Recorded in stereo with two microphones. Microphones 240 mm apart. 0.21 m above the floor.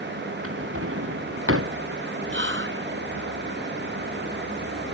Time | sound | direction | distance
0.4 | a drawer | 65° right (ahead or behind) | ?
2.3 | whispering | 55° right (ahead or behind) | ?